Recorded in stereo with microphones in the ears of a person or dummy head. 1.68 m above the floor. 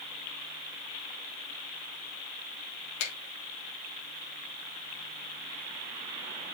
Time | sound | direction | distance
3.0 | a finger snap | 80° left | 3 m